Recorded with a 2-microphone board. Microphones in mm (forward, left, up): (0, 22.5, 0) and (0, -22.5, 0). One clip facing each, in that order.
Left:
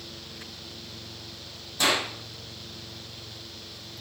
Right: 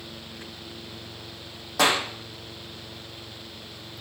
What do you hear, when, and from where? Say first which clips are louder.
1.8 s a clap: right 3 dB; 75° right (ahead or behind), 7.5 m